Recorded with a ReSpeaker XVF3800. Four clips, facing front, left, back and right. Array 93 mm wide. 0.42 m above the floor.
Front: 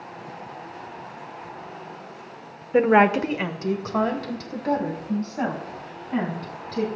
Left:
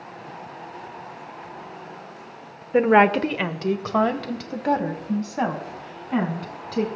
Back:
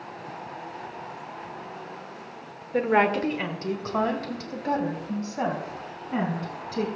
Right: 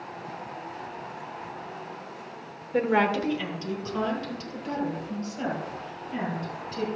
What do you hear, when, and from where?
2.7 s a woman speaking: 45° left, 0.8 m; by 6.8 s 100° left, 4 m